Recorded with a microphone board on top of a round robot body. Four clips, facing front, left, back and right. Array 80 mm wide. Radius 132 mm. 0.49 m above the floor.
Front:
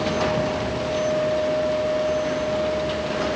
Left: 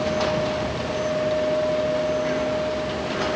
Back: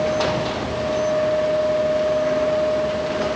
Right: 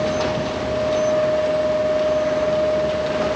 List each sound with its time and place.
Only background noise.